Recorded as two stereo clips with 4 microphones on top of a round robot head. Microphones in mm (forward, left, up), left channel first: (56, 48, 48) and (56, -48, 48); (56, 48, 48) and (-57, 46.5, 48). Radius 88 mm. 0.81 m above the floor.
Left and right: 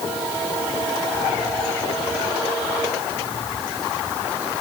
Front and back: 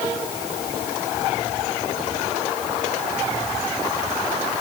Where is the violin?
I don't hear a violin.